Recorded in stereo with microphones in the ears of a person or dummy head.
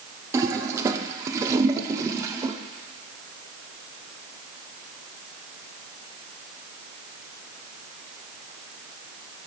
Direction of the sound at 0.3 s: 20° right (ahead or behind).